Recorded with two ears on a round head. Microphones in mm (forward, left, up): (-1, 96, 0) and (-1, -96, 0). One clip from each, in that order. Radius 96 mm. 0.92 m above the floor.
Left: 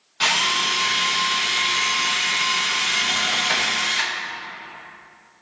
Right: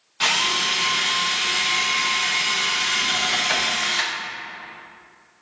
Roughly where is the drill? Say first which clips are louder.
Left 1 dB; centre.